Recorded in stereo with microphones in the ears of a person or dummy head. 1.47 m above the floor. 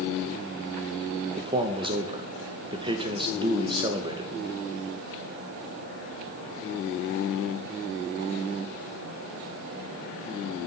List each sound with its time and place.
1.4 s a man speaking: 25° right (ahead or behind), 1.3 m